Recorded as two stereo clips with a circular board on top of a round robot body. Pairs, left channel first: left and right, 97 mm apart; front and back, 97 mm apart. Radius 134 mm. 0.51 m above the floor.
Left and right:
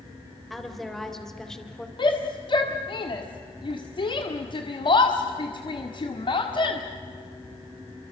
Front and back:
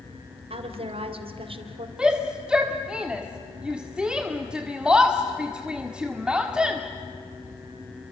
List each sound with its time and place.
0.5 s a woman speaking: straight behind, 3.5 m; by 1.9 s 170° left, 2.5 m
2.0 s a shout: 100° left, 1.8 m